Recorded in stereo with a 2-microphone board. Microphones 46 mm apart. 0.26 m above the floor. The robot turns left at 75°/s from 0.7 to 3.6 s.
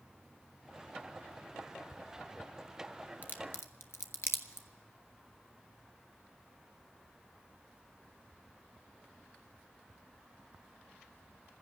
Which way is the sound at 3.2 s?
40° left (ahead or behind).